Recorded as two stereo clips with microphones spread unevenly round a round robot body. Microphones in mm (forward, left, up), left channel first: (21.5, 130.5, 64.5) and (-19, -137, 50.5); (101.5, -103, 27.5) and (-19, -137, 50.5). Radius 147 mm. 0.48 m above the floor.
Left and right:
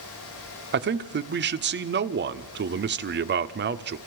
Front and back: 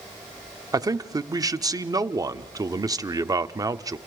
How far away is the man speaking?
About 1.2 m.